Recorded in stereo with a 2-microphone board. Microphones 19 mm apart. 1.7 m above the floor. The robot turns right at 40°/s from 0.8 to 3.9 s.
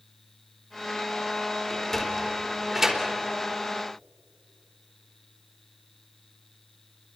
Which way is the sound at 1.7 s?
25° left (ahead or behind).